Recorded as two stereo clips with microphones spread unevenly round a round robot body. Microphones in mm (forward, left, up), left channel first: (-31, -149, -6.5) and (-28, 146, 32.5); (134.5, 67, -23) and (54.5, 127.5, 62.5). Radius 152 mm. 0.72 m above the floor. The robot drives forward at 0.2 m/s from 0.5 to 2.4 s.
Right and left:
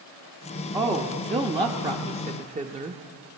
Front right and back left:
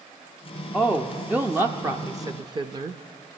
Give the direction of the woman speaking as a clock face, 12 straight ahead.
12 o'clock.